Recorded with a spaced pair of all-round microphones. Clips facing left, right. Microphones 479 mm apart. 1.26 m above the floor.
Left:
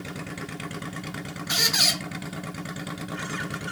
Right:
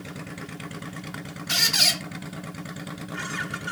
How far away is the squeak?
About 0.7 m.